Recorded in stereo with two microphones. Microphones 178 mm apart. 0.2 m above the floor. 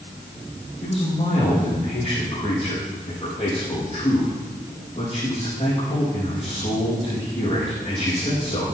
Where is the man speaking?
35° left (ahead or behind), 6.5 m.